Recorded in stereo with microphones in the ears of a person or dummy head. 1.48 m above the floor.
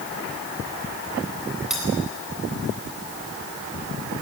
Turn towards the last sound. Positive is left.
turn(degrees=-5)  # may be behind; listen again after turning